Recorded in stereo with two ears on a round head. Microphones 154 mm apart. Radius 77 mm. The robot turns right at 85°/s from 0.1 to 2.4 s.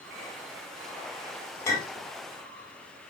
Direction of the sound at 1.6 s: 15° left (ahead or behind).